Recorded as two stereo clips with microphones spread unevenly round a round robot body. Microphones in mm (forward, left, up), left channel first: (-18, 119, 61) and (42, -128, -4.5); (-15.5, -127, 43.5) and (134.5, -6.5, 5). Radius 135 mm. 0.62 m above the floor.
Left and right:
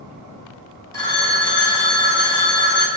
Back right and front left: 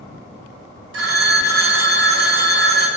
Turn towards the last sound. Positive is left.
turn(degrees=25)